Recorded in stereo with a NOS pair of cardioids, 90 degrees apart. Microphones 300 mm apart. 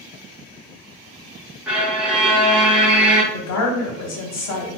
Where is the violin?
5° right, 0.6 m.